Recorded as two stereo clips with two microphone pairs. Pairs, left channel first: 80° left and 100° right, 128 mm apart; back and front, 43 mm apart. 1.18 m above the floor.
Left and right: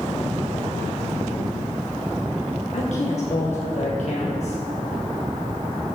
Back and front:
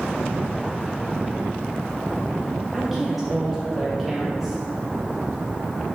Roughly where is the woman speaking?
Left.